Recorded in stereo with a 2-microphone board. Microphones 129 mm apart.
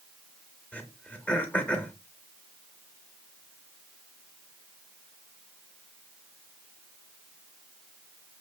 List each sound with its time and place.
0.7 s throat clearing: 10° left (ahead or behind), 0.6 m